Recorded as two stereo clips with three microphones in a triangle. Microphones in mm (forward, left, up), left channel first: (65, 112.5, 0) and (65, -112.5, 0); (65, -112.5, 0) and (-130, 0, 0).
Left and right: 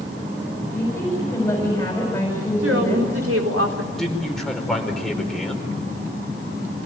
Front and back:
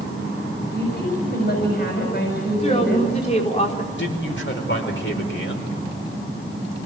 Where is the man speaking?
Straight ahead, 4.5 m.